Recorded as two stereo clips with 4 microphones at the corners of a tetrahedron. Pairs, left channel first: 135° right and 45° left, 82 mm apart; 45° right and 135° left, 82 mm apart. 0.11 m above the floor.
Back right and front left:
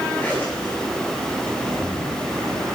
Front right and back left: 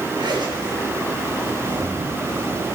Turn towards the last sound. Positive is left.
turn(degrees=155)